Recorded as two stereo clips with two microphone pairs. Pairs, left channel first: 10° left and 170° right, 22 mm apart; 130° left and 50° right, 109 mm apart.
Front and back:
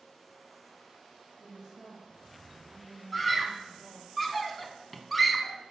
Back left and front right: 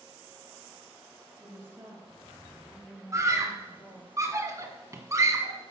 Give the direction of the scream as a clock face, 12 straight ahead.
3 o'clock.